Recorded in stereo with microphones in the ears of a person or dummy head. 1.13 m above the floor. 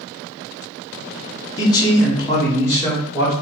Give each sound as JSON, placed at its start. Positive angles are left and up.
{"t": 1.6, "sound": "a man speaking", "side_deg": 15, "distance_m": 0.8}